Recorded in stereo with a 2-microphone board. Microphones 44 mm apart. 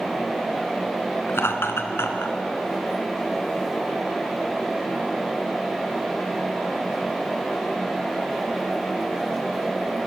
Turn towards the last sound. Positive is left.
turn(degrees=70)  # may be behind; listen again after turning